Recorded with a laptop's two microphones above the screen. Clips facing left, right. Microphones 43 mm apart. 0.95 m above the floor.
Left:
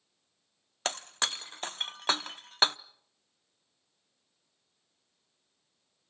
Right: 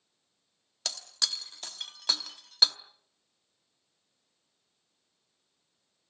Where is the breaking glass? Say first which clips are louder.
Left 4 dB; 40° left (ahead or behind), 0.5 m.